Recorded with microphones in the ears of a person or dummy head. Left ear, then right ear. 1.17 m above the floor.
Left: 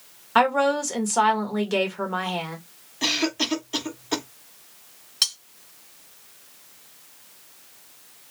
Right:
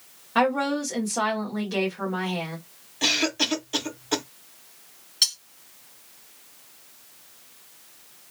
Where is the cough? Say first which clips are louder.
Right 1 dB; 10° right (ahead or behind), 0.9 m.